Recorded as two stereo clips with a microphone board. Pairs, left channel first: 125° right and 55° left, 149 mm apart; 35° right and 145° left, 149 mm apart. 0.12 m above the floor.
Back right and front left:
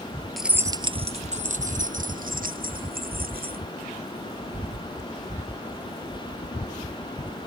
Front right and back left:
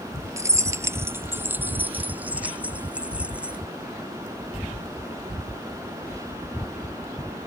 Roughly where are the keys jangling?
Behind left.